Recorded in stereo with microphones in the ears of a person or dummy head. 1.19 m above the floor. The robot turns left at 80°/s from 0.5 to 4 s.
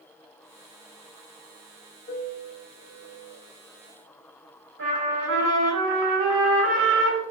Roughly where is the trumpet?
Right.